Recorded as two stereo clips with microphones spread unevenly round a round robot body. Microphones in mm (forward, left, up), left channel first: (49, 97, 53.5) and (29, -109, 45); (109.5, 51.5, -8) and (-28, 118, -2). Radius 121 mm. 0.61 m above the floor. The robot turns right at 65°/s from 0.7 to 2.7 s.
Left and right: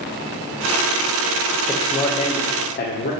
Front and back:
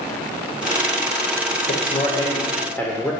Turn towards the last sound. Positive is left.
turn(degrees=50)